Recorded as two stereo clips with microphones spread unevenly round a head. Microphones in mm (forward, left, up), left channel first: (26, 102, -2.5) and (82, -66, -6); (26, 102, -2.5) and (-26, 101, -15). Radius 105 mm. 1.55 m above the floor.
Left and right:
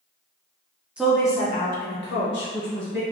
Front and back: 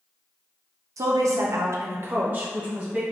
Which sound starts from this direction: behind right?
A woman speaking, at 1.0 s.